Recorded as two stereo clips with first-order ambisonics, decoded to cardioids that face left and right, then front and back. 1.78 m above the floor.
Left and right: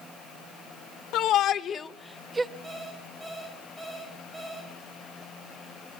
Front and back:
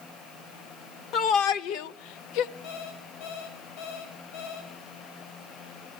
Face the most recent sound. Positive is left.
turn(degrees=-5)